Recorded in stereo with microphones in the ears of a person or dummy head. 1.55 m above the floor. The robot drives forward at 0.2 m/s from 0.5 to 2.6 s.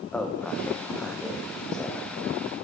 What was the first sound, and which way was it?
A man speaking, 5° left (ahead or behind).